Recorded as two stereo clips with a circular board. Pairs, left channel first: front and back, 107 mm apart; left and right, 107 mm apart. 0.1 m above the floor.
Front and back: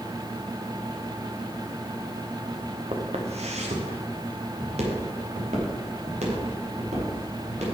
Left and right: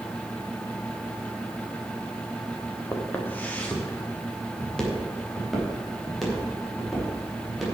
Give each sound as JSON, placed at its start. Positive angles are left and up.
{"t": 2.9, "sound": "footsteps", "azimuth_deg": 160, "distance_m": 2.5}